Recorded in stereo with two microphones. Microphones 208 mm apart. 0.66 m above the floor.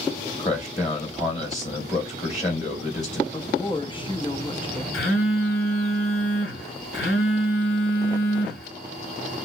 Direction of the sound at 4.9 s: 75° left (ahead or behind).